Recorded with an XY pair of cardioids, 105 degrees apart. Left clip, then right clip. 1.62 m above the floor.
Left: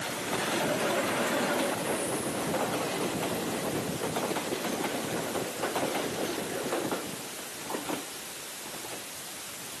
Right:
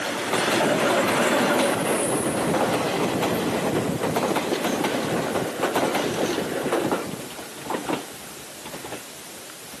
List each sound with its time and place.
Only background noise.